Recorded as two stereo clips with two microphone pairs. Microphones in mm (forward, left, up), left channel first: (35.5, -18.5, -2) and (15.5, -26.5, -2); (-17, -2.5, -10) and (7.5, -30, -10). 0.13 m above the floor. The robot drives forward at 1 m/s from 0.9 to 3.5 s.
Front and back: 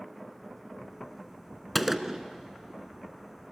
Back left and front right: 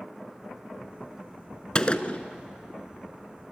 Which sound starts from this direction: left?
A gunshot, at 1.8 s.